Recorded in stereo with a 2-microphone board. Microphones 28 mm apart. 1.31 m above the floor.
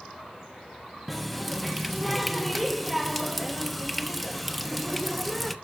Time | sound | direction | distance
1.1 | a running tap | 5° left (ahead or behind) | 0.9 m